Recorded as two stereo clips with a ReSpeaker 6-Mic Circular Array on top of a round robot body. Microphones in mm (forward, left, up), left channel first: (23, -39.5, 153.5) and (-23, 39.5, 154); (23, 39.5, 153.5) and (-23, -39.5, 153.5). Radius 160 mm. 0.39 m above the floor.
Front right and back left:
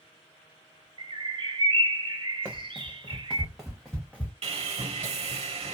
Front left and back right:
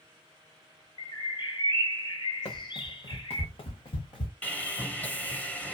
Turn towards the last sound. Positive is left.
turn(degrees=135)